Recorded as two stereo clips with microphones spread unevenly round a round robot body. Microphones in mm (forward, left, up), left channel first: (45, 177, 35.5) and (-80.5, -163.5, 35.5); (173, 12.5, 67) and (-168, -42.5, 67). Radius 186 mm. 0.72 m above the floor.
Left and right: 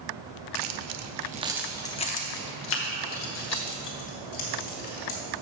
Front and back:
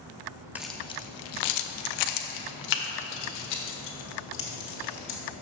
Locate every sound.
0.6 s keys jangling: 85° right, 0.7 m; by 5.2 s 30° left, 2.5 m